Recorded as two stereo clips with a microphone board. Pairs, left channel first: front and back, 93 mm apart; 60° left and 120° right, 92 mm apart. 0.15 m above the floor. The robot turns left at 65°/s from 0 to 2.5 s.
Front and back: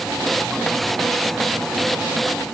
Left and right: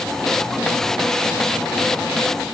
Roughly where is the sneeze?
No sneeze in this recording.